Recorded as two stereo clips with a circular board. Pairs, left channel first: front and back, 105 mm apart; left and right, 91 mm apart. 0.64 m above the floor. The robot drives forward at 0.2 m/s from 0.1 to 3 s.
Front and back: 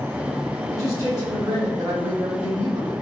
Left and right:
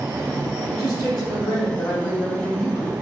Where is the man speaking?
130° left, 1.8 m; by 2.9 s 140° left, 2 m.